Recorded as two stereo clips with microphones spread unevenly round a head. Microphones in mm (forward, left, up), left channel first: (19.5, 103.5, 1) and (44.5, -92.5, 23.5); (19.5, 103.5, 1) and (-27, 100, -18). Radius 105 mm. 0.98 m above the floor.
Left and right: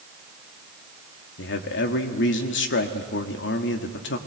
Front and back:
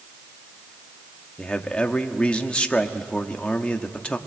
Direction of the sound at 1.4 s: 70° left.